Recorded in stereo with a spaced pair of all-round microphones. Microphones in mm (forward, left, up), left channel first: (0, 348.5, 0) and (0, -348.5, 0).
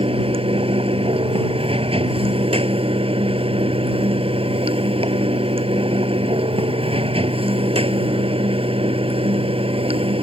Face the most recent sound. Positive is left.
turn(degrees=-10)  # may be behind; listen again after turning